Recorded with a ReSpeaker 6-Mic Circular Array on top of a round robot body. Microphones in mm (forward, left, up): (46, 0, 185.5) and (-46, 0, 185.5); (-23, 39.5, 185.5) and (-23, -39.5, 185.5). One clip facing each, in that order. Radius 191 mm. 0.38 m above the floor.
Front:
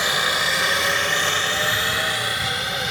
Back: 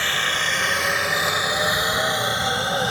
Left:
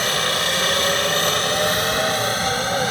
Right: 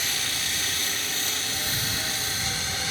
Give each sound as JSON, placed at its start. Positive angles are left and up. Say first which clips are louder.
{"t": 0.0, "sound": "a helicopter", "louder": "front 2 dB, left 11 dB", "azimuth_deg": 75}